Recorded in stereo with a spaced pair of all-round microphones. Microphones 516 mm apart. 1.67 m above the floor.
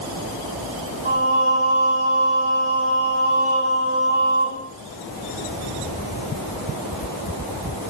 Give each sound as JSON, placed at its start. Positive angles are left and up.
{"t": 1.1, "sound": "singing", "side_deg": -85, "distance_m": 4.0}